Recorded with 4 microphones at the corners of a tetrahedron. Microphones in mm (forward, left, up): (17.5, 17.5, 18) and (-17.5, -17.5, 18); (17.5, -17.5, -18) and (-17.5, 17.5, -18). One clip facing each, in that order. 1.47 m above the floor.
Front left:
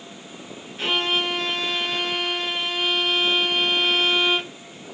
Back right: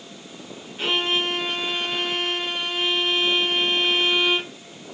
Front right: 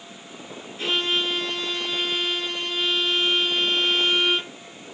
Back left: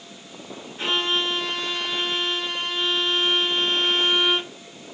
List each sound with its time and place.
0.8 s a violin: 150° left, 2 m